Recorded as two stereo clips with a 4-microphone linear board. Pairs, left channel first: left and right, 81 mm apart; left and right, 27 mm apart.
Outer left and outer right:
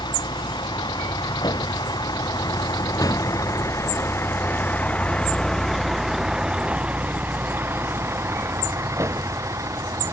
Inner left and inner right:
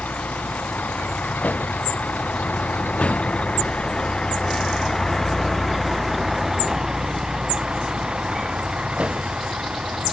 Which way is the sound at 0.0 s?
75° left (ahead or behind).